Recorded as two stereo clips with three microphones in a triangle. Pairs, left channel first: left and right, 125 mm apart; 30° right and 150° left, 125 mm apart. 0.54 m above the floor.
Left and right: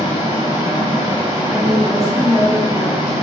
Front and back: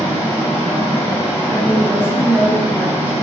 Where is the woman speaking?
85° left, 0.7 m.